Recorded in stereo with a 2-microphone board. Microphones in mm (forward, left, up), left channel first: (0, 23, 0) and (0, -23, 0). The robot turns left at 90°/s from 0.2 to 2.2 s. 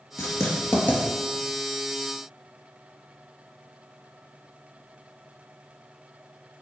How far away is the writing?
About 3 m.